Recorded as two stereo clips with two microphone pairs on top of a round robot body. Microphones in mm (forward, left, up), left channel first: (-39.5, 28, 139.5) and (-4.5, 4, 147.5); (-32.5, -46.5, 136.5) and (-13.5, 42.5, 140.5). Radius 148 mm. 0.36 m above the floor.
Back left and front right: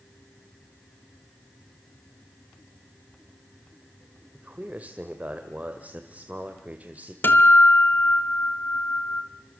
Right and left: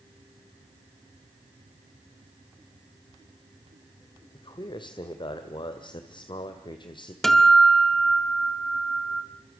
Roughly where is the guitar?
Behind.